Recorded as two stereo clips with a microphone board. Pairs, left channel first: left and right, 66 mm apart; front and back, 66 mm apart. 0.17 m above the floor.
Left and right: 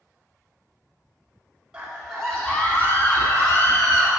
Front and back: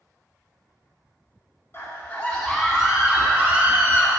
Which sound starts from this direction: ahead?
A scream, at 1.7 s.